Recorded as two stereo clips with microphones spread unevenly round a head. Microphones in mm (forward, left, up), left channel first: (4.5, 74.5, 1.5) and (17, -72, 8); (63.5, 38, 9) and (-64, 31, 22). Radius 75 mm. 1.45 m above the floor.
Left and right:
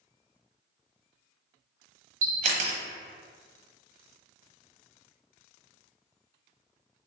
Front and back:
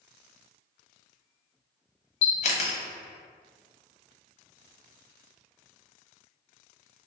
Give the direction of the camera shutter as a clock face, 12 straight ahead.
1 o'clock.